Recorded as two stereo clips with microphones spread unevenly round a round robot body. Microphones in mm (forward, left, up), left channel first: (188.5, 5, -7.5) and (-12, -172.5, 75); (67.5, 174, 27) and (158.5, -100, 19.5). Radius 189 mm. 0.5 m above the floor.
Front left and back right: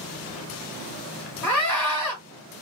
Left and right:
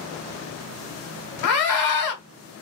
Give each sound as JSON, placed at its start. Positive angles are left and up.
{"t": 1.4, "sound": "a scream", "azimuth_deg": 120, "distance_m": 1.5}